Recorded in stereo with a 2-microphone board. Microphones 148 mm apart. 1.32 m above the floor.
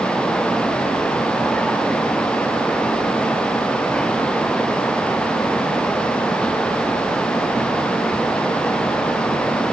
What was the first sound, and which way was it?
Only background noise.